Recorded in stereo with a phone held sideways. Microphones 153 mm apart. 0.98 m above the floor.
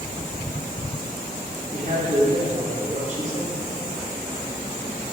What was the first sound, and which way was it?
A man speaking, 55° right (ahead or behind).